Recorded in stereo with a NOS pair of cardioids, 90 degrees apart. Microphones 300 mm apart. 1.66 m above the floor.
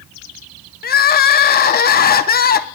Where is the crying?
30° left, 0.7 m.